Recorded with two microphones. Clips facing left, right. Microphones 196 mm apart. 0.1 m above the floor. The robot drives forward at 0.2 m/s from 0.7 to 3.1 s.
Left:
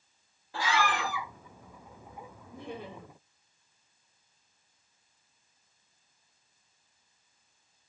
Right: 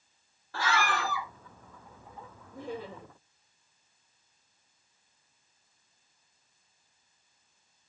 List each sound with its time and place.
0.5 s a scream: 15° left (ahead or behind), 1.1 m
2.5 s laughter: 60° left (ahead or behind), 3 m